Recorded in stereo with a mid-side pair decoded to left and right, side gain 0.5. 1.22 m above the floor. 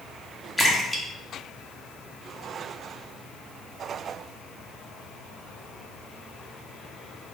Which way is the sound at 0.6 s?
Straight ahead.